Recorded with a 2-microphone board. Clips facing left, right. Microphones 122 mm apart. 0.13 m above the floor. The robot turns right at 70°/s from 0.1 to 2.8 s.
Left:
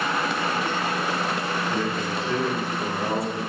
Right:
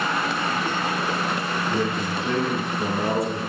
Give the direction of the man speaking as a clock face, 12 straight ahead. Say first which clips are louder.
Right 1 dB; 5 o'clock.